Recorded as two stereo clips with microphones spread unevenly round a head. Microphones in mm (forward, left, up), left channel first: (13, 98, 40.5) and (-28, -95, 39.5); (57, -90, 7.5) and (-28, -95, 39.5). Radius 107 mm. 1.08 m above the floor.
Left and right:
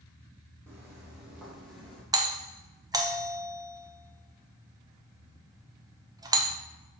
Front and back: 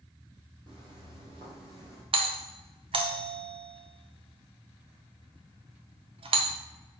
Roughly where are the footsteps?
Behind.